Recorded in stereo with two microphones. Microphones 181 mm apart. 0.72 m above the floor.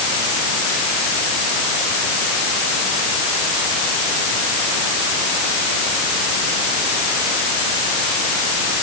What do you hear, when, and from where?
Only background noise.